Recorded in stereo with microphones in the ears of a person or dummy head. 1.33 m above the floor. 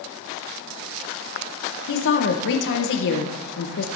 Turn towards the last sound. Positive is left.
turn(degrees=65)  # may be behind; listen again after turning